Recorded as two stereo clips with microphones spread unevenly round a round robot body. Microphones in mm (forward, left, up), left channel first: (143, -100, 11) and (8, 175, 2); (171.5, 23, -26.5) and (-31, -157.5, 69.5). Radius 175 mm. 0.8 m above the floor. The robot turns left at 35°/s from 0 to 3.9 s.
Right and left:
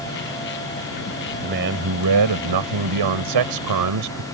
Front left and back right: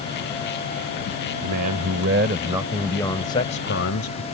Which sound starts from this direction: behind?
A man speaking, at 1.4 s.